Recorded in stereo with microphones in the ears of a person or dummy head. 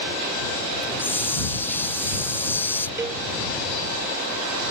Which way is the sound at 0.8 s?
5° left (ahead or behind).